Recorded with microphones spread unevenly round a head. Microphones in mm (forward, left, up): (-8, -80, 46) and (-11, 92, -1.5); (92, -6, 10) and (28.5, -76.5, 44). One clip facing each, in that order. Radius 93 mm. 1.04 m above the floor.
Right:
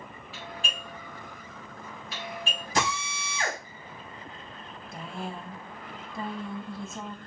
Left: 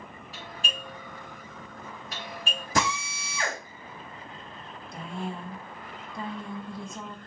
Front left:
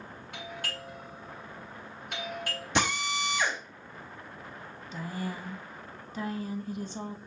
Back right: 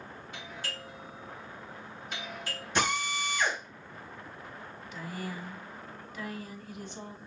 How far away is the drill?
About 4.5 m.